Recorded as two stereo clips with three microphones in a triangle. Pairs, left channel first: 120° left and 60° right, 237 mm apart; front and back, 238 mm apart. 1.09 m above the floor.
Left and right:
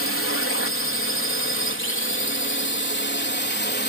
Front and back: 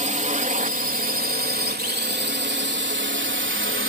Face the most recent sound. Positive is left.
turn(degrees=160)